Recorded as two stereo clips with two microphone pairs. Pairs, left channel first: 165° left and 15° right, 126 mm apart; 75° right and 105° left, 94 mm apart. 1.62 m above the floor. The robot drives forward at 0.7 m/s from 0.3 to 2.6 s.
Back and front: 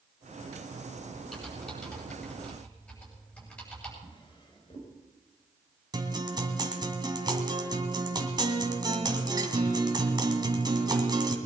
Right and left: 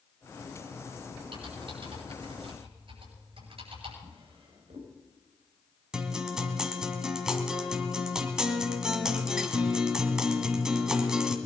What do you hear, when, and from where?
1.3 s typing on a keyboard: 80° left, 8 m; by 3.9 s 85° left, 8 m
4.0 s a drawer: 115° left, 4 m
5.9 s a guitar: 25° left, 1.9 m